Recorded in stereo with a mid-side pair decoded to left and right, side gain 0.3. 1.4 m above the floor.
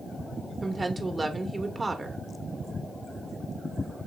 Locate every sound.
0.6 s a woman speaking: 40° right, 1.3 m